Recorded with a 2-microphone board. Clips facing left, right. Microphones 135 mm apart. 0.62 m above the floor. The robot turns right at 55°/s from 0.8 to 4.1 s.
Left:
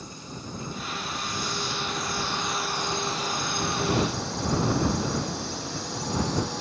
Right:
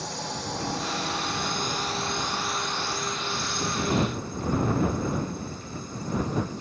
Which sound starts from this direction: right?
A drone, at 0.0 s.